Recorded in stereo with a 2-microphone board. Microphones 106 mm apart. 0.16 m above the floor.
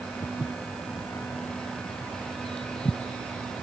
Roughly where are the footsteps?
Left.